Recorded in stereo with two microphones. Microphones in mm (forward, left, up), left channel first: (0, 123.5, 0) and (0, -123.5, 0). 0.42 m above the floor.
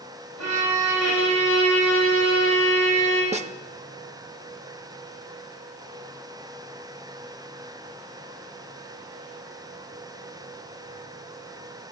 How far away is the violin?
About 9 m.